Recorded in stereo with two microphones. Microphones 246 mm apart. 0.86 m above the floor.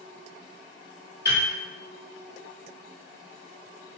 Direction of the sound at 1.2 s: 40° left (ahead or behind).